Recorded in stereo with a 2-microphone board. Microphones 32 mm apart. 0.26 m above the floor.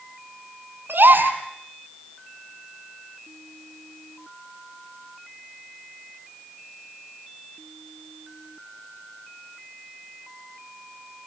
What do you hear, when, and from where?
0.9 s a gasp: 85° right, 3 m